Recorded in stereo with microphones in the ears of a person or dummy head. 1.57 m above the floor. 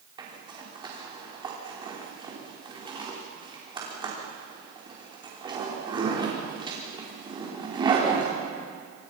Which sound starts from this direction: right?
A zipper, at 0.2 s.